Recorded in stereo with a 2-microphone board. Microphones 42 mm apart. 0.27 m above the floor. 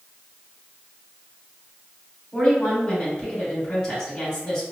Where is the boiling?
No boiling in this recording.